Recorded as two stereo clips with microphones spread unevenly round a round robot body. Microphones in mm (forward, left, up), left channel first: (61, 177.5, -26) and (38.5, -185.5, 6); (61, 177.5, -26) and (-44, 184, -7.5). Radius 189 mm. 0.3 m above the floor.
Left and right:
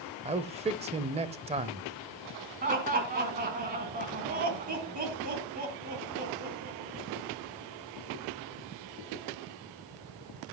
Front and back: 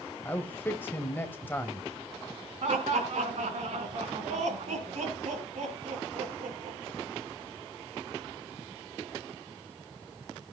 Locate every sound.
0.2 s a man speaking: 30° right, 1.0 m
2.6 s laughter: 165° right, 3 m